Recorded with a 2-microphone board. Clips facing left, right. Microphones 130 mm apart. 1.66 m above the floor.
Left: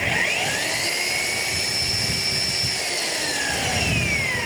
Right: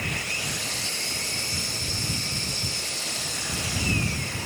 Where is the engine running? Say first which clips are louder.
Left 8 dB; 80° left.